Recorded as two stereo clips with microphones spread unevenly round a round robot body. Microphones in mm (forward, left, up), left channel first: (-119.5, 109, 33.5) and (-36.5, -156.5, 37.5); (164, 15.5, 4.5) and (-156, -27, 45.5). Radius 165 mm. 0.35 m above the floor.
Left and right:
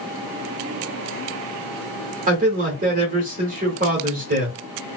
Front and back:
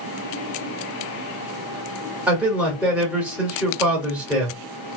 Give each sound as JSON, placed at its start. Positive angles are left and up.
{"t": 2.3, "sound": "a man speaking", "azimuth_deg": -75, "distance_m": 1.3}